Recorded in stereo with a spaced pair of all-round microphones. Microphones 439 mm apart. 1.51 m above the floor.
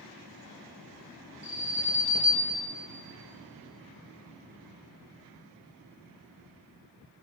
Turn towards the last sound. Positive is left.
turn(degrees=15)  # may be behind; listen again after turning